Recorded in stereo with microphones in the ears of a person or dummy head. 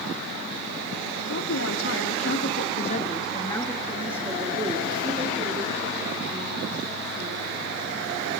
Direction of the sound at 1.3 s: 80° left.